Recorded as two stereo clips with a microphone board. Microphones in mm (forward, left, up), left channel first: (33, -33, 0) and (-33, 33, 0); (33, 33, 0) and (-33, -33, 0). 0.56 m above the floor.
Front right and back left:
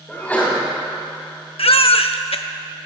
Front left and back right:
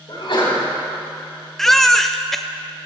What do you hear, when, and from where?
0.1 s a sneeze: 30° left, 5 m
1.6 s a baby crying: 40° right, 0.6 m